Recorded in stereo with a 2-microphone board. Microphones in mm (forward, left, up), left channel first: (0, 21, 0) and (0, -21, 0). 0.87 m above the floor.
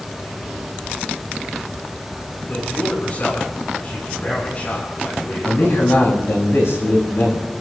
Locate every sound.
2.5 s a man speaking: 40° left (ahead or behind), 7.5 m
5.5 s a man speaking: 70° left (ahead or behind), 4.5 m